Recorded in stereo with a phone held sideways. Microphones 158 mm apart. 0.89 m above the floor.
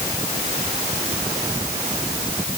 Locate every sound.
Only background noise.